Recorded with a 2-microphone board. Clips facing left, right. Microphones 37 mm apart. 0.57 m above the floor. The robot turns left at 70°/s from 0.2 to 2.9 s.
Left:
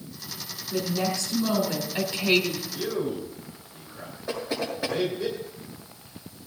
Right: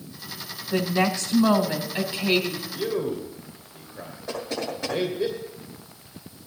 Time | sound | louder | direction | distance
0.7 | a woman speaking | right 4 dB | 80° right | 1.9 m
2.7 | a man speaking | right 4 dB | 15° right (ahead or behind) | 3 m
4.3 | knocking | even | 10° left (ahead or behind) | 8 m